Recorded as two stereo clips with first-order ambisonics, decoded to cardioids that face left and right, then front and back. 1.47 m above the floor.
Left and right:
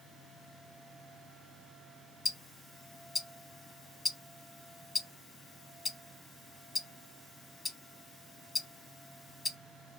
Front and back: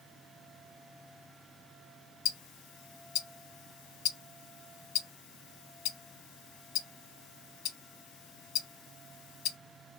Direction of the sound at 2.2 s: 15° left.